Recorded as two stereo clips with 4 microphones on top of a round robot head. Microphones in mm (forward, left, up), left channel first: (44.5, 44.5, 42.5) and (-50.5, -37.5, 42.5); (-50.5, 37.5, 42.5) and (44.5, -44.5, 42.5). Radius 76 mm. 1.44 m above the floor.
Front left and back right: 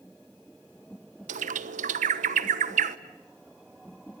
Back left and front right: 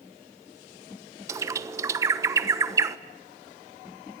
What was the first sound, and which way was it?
A bird, 110° right.